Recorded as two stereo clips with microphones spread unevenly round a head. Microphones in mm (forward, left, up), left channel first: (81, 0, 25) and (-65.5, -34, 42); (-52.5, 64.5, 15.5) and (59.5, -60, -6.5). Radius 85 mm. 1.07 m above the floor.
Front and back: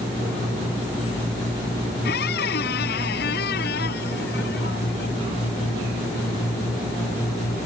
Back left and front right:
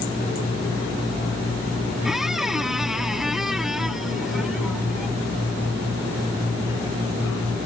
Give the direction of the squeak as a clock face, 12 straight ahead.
11 o'clock.